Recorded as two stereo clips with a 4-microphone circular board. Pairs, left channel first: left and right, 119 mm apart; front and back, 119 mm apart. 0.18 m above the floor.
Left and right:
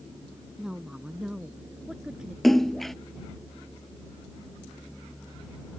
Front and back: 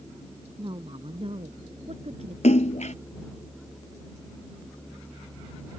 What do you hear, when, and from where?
0.6 s a woman speaking: 170° right; by 2.3 s 175° right
2.4 s a splash: straight ahead